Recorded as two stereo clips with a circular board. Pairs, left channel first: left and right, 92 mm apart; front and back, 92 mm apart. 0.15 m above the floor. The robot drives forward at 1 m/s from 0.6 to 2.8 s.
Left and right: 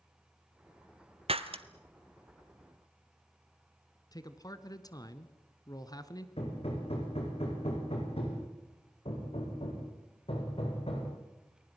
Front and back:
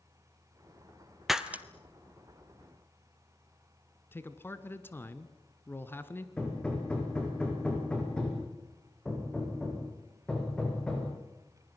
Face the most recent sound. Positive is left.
turn(degrees=80)